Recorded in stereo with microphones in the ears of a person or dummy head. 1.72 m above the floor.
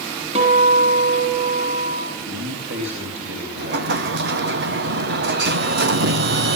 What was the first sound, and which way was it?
A guitar, 40° right (ahead or behind).